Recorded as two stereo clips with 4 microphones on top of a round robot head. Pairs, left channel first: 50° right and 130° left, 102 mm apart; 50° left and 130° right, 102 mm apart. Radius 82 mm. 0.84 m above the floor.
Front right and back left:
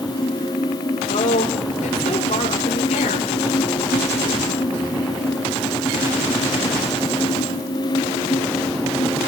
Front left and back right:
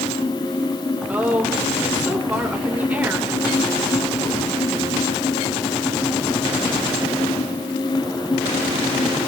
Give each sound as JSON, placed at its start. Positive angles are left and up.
{"t": 1.1, "sound": "a woman speaking", "azimuth_deg": -55, "distance_m": 2.5}